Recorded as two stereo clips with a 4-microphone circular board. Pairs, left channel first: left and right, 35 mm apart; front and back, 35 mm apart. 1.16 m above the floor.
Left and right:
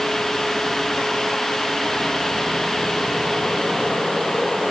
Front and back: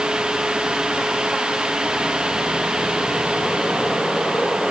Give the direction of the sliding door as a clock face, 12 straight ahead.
No sliding door in this recording.